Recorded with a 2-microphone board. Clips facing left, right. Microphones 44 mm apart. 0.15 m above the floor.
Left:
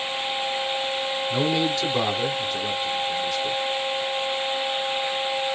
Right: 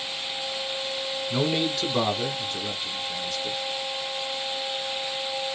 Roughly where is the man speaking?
Centre.